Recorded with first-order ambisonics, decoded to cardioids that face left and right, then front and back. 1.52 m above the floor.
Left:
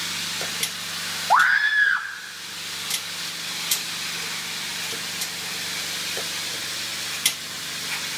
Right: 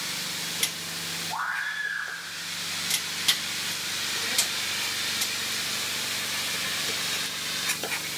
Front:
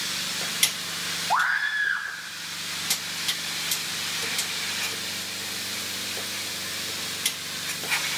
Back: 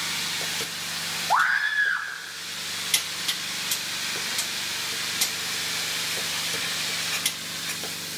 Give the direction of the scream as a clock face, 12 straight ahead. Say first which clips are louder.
Left 14 dB, back 2 dB; 9 o'clock.